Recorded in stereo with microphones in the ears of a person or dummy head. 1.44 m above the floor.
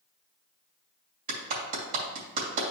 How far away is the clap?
About 2.5 m.